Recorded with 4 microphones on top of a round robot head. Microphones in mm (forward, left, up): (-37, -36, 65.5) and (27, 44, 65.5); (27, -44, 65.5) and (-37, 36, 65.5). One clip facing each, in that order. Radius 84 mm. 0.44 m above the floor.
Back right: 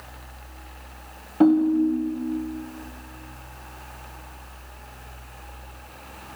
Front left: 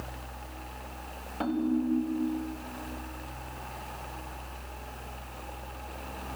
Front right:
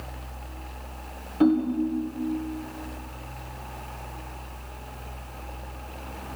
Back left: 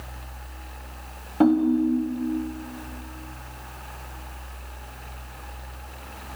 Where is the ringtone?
175° left, 2 m.